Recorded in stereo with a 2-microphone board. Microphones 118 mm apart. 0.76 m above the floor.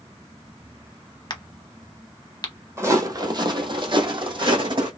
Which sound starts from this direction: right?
Footsteps, at 2.8 s.